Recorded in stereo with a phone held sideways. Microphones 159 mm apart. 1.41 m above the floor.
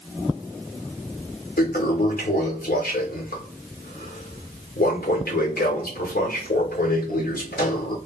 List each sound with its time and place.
1.6 s a toilet flushing: 70° left (ahead or behind), 1.1 m